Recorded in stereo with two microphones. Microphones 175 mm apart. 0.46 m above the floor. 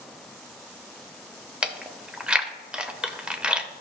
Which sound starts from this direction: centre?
Chewing, at 1.6 s.